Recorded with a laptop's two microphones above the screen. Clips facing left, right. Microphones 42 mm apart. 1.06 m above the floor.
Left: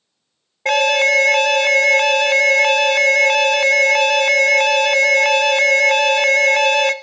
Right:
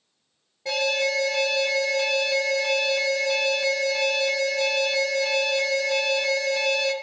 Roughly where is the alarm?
Left.